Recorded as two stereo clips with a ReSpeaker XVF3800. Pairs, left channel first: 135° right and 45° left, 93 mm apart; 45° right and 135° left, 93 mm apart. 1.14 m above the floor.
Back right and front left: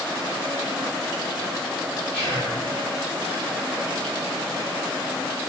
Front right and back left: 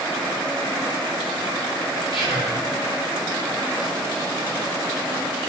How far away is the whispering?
About 2 m.